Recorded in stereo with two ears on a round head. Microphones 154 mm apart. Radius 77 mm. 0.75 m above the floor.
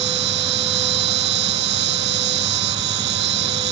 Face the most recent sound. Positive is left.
turn(degrees=-70)  # may be behind; listen again after turning